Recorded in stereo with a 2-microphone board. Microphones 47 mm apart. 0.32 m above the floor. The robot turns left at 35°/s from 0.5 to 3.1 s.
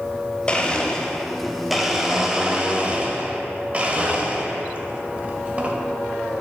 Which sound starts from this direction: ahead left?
A blender, at 0.5 s.